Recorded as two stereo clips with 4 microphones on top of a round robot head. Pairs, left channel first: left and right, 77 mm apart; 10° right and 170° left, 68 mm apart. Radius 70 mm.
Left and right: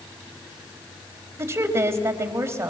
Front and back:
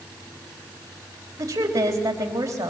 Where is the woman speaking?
145° right, 4 m.